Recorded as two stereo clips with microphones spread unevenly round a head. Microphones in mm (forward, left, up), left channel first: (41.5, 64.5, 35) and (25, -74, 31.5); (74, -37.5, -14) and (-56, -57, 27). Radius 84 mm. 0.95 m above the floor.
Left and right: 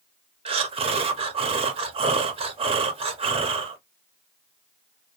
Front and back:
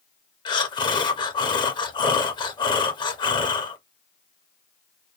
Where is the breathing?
45° right, 0.6 m.